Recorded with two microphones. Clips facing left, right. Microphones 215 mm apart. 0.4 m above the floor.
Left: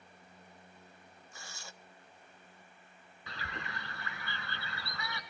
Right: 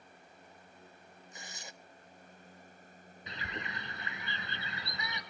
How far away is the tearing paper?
About 1.0 m.